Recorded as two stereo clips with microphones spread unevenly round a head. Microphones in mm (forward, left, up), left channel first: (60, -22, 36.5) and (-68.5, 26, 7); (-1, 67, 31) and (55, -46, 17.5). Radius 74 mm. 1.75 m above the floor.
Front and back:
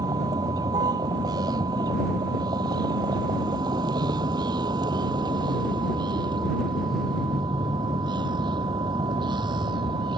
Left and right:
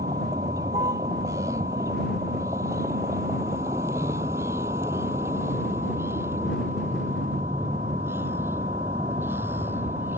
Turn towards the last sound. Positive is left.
turn(degrees=-140)